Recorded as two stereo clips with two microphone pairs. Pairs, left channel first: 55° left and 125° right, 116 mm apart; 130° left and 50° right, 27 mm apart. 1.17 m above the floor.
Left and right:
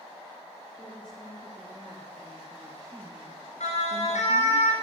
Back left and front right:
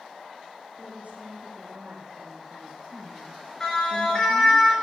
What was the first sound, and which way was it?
A woman speaking, 25° right.